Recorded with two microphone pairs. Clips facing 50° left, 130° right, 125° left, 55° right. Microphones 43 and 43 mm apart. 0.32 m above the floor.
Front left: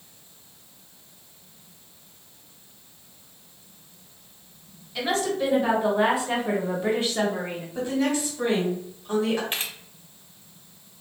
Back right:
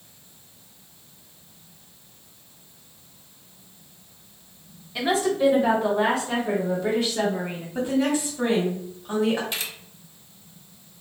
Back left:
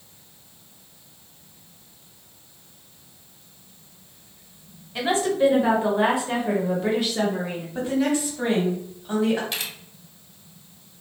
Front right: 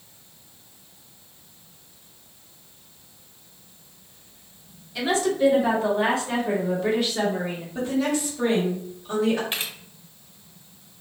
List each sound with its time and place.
5.0 s a woman speaking: 165° left, 1.2 m; by 7.7 s 30° left, 1.3 m
7.8 s a woman speaking: straight behind, 1.5 m
9.5 s a camera shutter: straight ahead, 0.9 m